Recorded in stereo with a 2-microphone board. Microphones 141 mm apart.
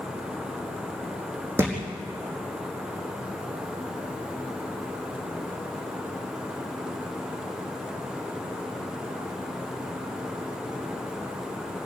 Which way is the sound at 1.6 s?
15° right (ahead or behind).